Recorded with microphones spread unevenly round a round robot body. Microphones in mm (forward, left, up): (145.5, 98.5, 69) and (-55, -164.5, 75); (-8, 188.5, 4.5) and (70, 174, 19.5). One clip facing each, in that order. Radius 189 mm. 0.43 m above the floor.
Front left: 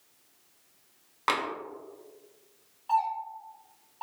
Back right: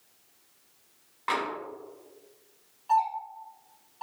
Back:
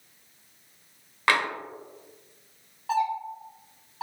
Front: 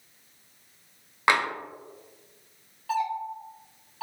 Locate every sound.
1.3 s tapping: 65° left, 1.0 m
2.9 s a doorbell: 130° left, 1.7 m